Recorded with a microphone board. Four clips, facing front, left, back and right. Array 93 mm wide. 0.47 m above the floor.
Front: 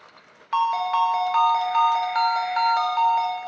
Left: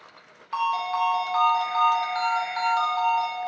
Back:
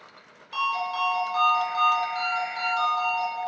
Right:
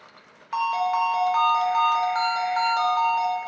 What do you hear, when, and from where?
0.5 s a ringtone: 15° right, 0.8 m